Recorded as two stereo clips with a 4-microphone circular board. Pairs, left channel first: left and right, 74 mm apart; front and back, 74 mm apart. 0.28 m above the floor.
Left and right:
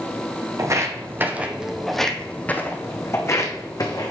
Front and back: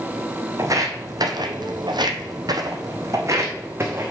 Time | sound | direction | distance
0.6 | footsteps | 135° right | 1.1 m